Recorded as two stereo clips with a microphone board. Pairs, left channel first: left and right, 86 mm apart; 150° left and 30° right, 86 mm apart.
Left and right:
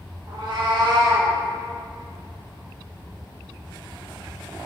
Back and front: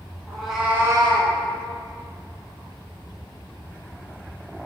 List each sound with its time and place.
0.3 s a cat meowing: 125° right, 0.9 m; by 1.3 s 20° right, 0.6 m